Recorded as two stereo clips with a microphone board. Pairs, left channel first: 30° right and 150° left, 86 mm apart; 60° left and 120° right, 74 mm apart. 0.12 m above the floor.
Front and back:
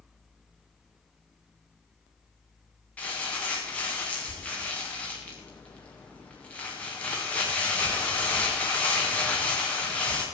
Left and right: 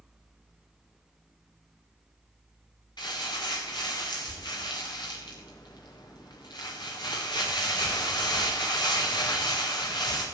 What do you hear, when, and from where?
3.0 s crumpling: 45° left, 4.5 m